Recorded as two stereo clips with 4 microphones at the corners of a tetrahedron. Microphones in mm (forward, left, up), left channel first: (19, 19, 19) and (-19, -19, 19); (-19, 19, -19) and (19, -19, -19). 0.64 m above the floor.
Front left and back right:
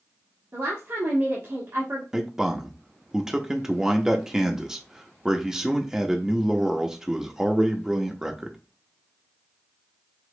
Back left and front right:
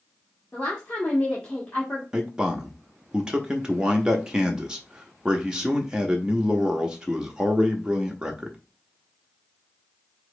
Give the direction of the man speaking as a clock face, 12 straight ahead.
3 o'clock.